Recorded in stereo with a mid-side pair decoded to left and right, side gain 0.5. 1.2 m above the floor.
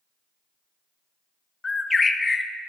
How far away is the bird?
About 0.9 m.